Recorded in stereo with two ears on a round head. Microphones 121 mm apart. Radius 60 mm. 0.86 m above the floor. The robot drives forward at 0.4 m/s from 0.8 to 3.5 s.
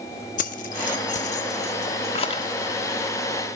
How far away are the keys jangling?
About 1.1 m.